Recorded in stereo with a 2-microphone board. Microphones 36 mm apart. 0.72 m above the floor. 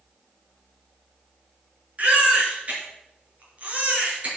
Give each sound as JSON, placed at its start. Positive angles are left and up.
{"t": 2.0, "sound": "a baby crying", "side_deg": -40, "distance_m": 4.0}